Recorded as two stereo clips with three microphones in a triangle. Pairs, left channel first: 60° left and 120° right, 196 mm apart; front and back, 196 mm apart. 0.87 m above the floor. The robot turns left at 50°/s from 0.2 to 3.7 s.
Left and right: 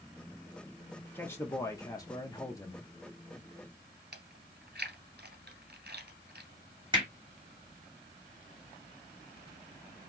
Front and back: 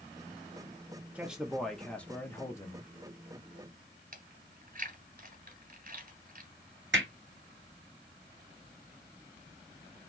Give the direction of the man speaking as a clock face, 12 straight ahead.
8 o'clock.